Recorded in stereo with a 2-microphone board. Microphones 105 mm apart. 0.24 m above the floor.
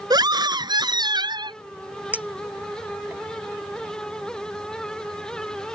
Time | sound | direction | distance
0.1 | a scream | 45° right (ahead or behind) | ?
2.1 | a clink | 15° right (ahead or behind) | ?